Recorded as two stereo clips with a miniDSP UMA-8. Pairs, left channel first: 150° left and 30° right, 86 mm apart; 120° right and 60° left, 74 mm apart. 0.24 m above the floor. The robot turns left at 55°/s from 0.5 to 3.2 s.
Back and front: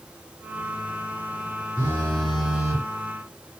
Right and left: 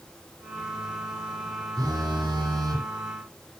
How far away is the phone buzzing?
About 6 m.